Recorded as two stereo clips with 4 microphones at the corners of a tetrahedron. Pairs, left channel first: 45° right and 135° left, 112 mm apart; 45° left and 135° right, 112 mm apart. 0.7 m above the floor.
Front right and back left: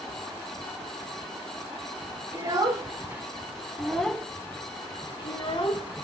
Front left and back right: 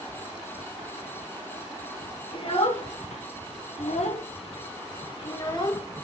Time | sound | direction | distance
2.3 | a child speaking | 80° left | 1.4 m